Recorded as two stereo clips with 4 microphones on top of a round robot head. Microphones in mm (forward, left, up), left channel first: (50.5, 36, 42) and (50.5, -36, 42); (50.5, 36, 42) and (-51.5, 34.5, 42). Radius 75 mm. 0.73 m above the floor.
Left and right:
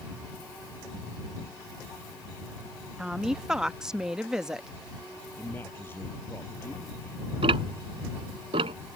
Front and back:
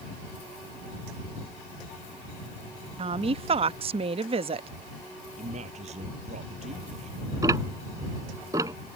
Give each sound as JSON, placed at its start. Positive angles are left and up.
{"t": 3.0, "sound": "a woman speaking", "azimuth_deg": -170}
{"t": 5.4, "sound": "a man speaking", "azimuth_deg": 160}
{"t": 7.4, "sound": "ticking", "azimuth_deg": -110}